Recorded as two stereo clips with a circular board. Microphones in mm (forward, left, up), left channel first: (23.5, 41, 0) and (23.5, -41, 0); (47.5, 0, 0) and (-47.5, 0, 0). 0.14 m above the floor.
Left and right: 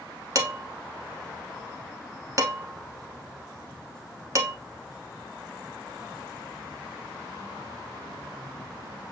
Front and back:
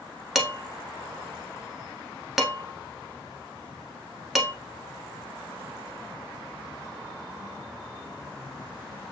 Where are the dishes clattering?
95° right, 0.9 m.